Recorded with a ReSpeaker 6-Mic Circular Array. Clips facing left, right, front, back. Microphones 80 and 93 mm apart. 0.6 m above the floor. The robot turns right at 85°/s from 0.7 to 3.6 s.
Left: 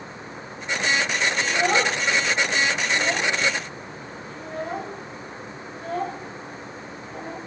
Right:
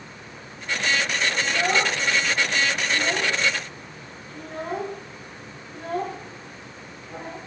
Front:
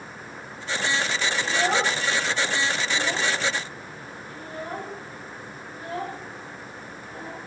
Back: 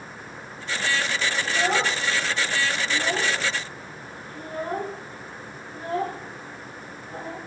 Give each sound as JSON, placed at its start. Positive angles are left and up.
{"t": 1.4, "sound": "a child speaking", "azimuth_deg": 45, "distance_m": 9.0}